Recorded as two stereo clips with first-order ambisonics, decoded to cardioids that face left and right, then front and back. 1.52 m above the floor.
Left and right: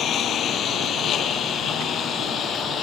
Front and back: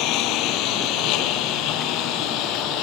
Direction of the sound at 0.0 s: 35° left.